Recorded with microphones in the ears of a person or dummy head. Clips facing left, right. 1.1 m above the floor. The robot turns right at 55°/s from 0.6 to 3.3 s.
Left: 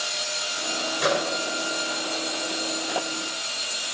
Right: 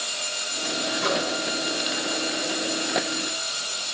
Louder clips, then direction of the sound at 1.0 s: Left 3 dB; 85° left.